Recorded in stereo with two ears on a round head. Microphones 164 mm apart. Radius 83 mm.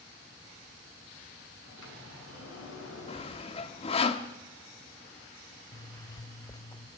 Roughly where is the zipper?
Left.